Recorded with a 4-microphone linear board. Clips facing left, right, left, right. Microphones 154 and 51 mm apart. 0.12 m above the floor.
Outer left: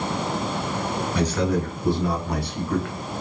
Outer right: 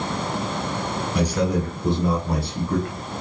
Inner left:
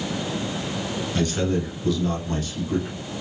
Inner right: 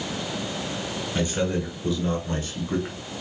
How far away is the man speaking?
About 1.9 m.